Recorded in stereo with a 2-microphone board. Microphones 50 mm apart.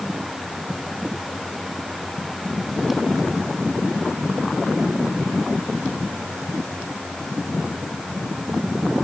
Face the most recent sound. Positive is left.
No sound to turn to.